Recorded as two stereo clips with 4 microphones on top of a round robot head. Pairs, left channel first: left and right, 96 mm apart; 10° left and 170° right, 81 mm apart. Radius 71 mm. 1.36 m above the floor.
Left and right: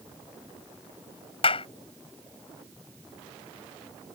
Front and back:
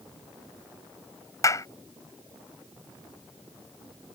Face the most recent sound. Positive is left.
turn(degrees=60)